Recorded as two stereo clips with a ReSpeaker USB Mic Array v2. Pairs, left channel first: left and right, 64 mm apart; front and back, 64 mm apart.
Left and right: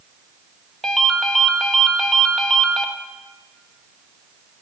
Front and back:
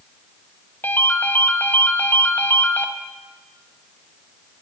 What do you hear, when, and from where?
0.8 s a ringtone: 10° left, 0.8 m